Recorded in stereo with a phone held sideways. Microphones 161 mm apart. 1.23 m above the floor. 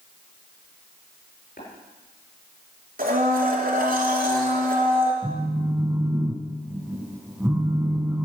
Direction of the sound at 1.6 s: 65° left (ahead or behind).